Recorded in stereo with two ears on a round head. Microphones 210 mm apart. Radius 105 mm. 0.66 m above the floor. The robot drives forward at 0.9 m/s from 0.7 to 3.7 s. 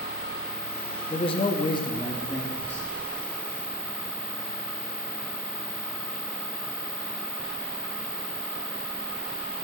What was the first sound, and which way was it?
A man speaking, 20° left (ahead or behind).